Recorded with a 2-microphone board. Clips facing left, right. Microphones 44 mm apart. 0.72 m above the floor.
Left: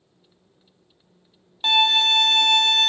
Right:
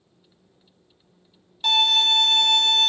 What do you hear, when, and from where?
1.6 s a violin: 25° left (ahead or behind), 0.8 m